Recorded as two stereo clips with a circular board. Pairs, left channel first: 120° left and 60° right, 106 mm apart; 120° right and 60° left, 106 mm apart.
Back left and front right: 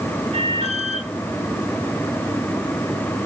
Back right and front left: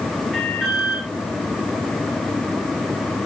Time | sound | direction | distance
0.3 | an alarm | 30° right | 9 m